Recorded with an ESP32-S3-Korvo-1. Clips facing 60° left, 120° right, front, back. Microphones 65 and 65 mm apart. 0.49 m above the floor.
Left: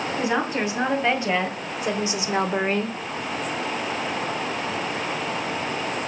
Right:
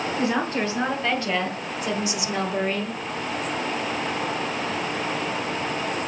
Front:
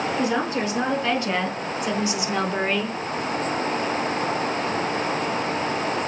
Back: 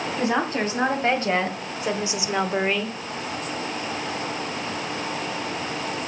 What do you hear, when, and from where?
0.2 s a woman speaking: 135° left, 3 m; by 3.0 s 70° left, 0.9 m